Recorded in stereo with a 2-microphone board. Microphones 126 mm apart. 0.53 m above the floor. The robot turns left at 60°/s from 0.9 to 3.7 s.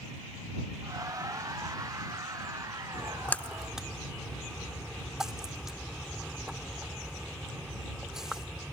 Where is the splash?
30° left (ahead or behind); by 8.8 s 5° right (ahead or behind).